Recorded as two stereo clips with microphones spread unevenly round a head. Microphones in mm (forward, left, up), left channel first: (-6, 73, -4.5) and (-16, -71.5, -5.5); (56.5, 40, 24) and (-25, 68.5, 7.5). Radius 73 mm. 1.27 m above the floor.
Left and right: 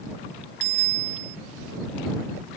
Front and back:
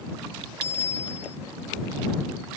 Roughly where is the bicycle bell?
Right.